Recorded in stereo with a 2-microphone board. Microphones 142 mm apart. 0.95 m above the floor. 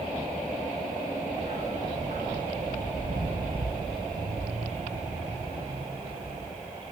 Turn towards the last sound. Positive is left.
turn(degrees=-30)  # may be behind; listen again after turning